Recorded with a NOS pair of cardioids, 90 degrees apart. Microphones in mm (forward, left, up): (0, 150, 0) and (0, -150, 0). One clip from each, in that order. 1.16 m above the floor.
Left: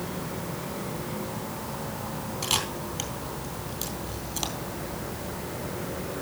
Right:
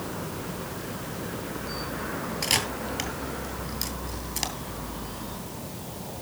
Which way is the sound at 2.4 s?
20° right.